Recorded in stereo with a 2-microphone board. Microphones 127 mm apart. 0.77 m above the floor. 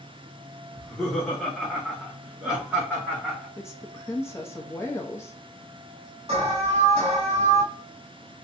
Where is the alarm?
45° right (ahead or behind), 1.7 m.